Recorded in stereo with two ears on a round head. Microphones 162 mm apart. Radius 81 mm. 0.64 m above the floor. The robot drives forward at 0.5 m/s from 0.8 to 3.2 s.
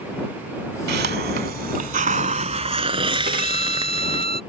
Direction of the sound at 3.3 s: 55° right (ahead or behind).